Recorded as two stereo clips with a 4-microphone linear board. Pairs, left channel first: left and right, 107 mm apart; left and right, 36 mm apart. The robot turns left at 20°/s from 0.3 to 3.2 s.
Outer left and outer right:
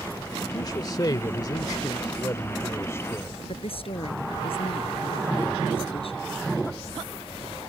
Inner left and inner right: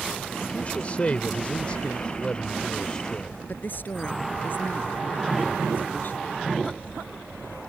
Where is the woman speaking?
60° left (ahead or behind).